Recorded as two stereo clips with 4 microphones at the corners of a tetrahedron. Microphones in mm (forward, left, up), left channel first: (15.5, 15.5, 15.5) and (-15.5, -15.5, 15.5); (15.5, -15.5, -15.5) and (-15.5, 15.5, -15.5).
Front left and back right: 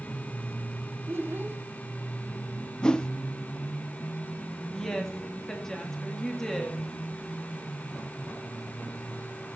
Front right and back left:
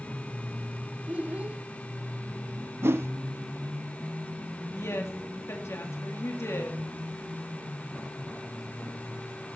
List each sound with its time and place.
1.1 s a child speaking: 165° right, 1.5 m
2.8 s a whoosh: 115° left, 0.6 m
4.7 s a woman speaking: 35° right, 2.5 m